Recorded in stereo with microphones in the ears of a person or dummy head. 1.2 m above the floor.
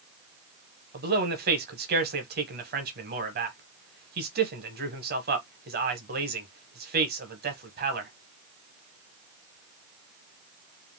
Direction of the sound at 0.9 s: 45° right (ahead or behind).